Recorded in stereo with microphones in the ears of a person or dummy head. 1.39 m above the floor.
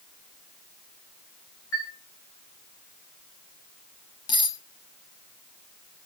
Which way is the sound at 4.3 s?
15° left (ahead or behind).